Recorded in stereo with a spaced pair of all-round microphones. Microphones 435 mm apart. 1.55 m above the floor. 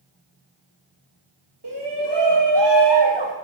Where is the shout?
60° right (ahead or behind), 2.5 m; by 3.3 s 75° right (ahead or behind), 1.8 m.